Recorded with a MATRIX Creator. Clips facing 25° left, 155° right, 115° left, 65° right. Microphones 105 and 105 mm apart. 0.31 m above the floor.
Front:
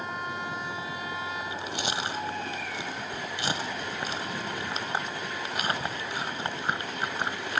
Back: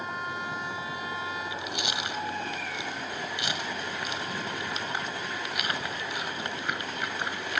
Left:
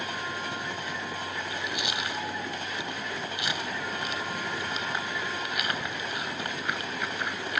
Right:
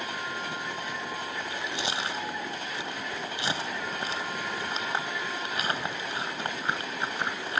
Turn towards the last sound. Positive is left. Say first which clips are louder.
# front 1 dB, even
turn(degrees=-20)